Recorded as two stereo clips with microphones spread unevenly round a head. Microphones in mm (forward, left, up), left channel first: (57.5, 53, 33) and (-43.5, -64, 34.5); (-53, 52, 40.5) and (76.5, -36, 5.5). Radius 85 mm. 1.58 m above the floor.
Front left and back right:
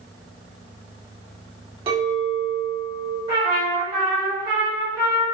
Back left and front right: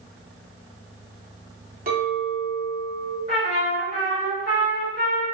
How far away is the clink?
About 1.3 m.